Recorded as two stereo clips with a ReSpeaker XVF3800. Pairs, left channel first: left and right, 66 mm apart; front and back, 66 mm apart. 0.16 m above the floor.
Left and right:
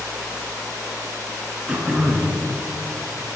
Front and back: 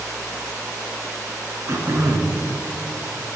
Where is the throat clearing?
160° right, 1.0 m.